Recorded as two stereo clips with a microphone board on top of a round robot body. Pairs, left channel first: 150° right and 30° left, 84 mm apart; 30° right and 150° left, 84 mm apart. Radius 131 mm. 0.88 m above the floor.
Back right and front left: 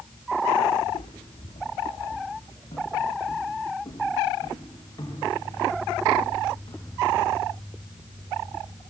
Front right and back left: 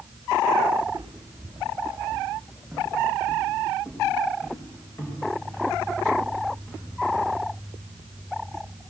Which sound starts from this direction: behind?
Footsteps, at 0.8 s.